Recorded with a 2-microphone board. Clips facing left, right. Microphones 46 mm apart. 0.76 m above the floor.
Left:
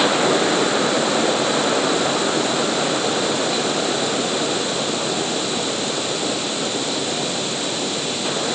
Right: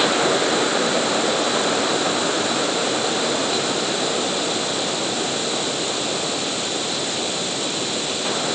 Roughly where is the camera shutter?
I don't hear a camera shutter.